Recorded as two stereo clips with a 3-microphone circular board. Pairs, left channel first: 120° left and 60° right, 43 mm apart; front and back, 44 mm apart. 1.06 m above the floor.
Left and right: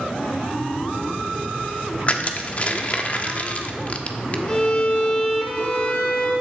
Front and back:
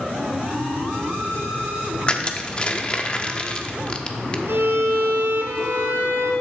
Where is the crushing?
65° left, 1.2 m.